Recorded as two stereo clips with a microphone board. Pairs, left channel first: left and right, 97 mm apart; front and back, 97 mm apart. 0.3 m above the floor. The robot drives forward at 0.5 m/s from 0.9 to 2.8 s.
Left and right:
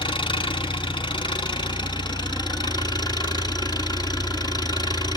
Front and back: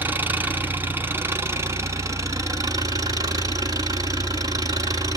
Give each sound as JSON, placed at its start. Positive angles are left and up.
{"t": 0.0, "sound": "an engine running", "azimuth_deg": 110, "distance_m": 2.5}